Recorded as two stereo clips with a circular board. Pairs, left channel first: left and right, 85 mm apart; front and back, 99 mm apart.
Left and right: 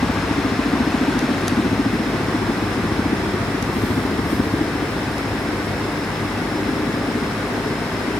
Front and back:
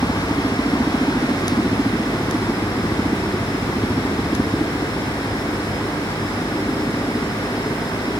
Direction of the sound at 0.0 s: 90° left.